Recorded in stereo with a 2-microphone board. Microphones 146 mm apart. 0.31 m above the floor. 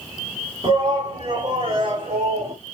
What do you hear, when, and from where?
0.6 s a shout: 30° right (ahead or behind), 2 m; by 2.6 s 45° right (ahead or behind), 1.3 m